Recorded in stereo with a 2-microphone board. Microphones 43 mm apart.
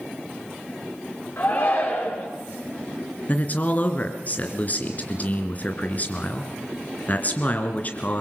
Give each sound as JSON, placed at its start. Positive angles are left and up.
{"t": 1.4, "sound": "a shout", "side_deg": 55, "distance_m": 4.5}
{"t": 3.3, "sound": "a man speaking", "side_deg": 40, "distance_m": 3.0}